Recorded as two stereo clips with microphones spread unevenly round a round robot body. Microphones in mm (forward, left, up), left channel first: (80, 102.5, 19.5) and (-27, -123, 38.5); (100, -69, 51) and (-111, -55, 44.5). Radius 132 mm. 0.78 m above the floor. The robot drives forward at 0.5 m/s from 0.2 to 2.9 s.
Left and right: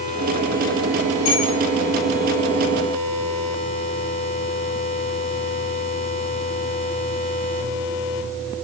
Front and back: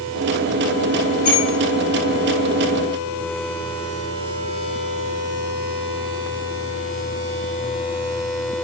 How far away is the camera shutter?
No camera shutter in this recording.